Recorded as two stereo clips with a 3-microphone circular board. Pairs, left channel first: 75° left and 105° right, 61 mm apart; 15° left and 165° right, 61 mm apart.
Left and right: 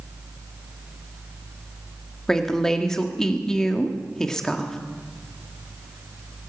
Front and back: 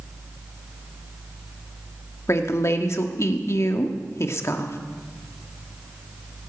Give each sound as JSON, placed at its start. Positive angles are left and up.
{"t": 2.3, "sound": "a woman speaking", "azimuth_deg": -5, "distance_m": 1.5}